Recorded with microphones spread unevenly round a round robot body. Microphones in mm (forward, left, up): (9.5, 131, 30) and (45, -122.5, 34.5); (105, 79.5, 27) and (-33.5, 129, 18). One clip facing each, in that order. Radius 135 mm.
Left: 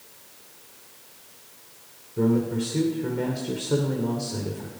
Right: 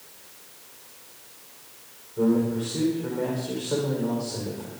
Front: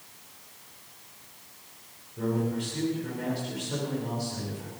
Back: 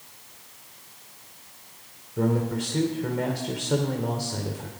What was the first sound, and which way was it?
A man speaking, 150° left.